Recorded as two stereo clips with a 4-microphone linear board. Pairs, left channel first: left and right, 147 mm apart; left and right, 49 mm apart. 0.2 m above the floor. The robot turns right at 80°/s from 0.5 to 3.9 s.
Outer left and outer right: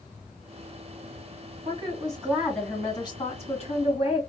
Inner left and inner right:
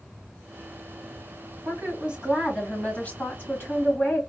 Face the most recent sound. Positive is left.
turn(degrees=110)